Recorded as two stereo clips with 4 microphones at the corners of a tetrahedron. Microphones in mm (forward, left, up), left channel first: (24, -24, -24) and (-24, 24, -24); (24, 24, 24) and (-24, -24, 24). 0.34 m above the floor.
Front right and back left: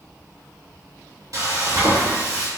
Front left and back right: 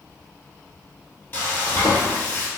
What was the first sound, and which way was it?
Frying, 100° left.